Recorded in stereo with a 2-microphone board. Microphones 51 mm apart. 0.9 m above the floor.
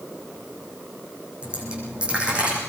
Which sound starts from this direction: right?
A dropped coin, at 1.4 s.